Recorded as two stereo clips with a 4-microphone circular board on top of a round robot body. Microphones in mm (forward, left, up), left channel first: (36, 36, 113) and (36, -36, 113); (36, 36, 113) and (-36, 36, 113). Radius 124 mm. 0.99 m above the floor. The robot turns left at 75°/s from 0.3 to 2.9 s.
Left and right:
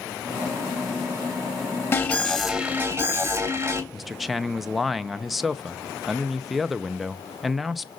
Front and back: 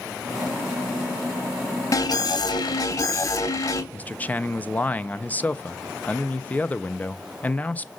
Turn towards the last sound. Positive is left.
turn(degrees=-5)